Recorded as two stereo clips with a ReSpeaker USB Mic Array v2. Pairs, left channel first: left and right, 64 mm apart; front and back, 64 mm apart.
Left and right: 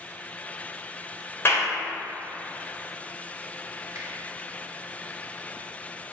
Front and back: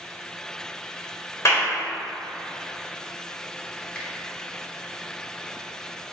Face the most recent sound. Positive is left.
turn(degrees=-70)